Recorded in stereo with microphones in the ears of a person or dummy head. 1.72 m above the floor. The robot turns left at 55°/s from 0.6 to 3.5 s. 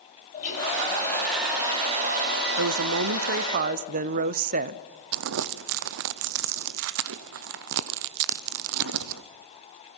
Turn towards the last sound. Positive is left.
turn(degrees=-60)  # may be behind; listen again after turning